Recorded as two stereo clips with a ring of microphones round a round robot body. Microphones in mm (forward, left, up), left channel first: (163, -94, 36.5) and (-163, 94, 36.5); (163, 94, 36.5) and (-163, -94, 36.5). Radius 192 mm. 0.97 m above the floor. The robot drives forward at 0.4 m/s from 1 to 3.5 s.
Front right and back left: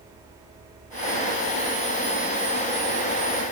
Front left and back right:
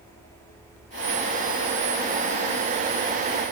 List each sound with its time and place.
Only background noise.